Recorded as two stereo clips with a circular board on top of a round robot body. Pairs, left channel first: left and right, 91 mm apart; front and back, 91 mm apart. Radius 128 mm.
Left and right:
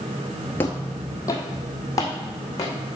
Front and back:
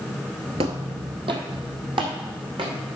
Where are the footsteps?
160° left, 0.5 m; by 2.8 s 145° left, 2.5 m.